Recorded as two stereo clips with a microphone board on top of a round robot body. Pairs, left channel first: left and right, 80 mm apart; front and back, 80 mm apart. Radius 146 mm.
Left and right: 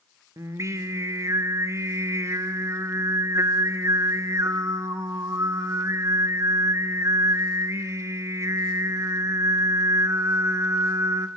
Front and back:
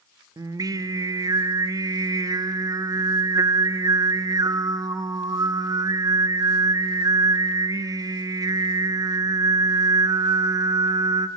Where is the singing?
140° right, 1.0 m.